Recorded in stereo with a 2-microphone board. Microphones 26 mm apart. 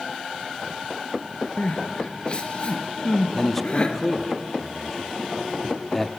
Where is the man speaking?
5° left (ahead or behind), 1.2 m.